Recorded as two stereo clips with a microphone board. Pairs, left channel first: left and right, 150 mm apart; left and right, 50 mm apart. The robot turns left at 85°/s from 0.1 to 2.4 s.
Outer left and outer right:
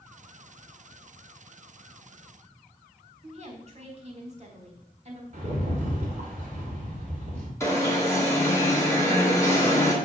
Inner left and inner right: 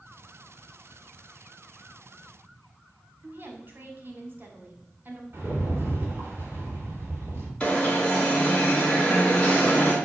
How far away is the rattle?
About 2 m.